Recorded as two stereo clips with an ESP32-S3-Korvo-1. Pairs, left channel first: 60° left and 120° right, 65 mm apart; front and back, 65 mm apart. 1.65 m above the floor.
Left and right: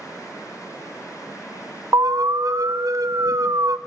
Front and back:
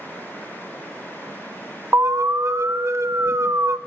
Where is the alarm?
140° right, 0.6 m.